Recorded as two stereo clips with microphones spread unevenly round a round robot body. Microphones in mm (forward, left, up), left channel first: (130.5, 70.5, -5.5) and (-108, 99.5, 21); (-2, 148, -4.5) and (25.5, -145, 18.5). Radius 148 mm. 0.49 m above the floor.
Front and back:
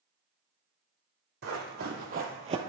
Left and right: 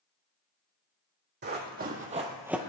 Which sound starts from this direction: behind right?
Running footsteps, at 1.4 s.